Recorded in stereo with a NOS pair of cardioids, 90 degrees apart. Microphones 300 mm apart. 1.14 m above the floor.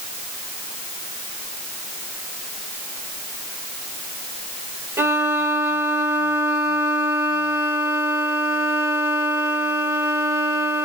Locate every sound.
5.0 s a violin: 10° right, 1.2 m